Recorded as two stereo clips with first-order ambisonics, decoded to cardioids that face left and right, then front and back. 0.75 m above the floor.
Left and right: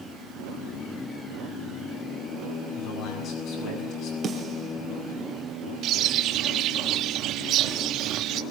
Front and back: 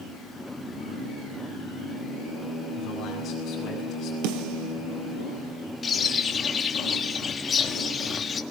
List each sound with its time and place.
2.8 s a man speaking: 55° left, 7.5 m
4.2 s a snare drum: 160° right, 4 m
5.8 s a bird: 60° right, 1.6 m